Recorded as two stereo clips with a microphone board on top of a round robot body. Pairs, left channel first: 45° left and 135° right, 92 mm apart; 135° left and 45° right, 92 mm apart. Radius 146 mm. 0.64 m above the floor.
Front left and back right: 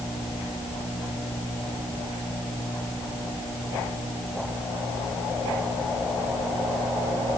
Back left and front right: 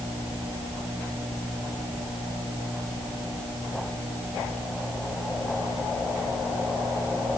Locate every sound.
Only background noise.